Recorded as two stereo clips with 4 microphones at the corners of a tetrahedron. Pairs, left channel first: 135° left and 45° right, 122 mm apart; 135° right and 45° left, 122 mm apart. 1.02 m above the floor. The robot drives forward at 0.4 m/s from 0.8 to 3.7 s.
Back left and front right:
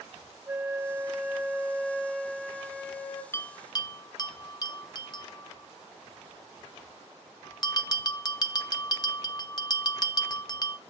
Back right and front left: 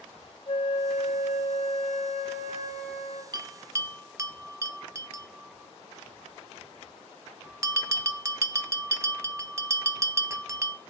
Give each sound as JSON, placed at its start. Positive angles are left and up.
{"t": 0.5, "sound": "a flute", "azimuth_deg": -105, "distance_m": 1.0}
{"t": 3.3, "sound": "a bell", "azimuth_deg": 75, "distance_m": 0.6}